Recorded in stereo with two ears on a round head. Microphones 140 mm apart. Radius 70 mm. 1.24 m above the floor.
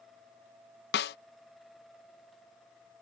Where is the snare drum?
70° left (ahead or behind).